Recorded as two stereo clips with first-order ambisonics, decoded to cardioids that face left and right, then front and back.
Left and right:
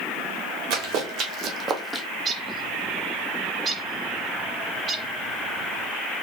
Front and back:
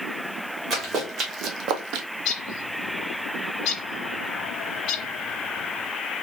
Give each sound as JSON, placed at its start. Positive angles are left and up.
{"t": 0.7, "sound": "running footsteps", "azimuth_deg": -115, "distance_m": 1.9}
{"t": 2.2, "sound": "a bird", "azimuth_deg": -30, "distance_m": 1.0}